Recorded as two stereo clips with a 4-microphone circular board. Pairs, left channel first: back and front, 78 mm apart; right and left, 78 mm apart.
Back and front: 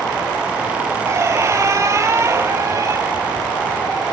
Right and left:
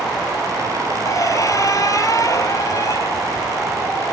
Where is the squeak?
50° right, 1.7 m.